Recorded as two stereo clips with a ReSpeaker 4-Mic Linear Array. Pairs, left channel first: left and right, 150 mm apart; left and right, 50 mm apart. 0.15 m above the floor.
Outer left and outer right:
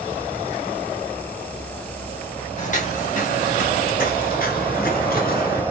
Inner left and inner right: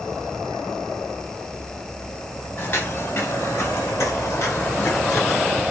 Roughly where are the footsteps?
Left.